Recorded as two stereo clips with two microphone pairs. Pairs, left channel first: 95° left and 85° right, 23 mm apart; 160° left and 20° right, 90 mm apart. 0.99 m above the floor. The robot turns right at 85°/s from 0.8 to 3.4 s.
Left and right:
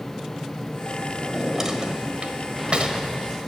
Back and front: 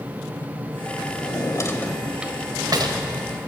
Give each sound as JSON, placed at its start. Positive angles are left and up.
{"t": 1.2, "sound": "a drawer", "azimuth_deg": 170, "distance_m": 1.2}